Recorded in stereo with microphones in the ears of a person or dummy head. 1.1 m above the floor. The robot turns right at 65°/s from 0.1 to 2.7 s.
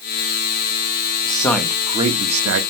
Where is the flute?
No flute in this recording.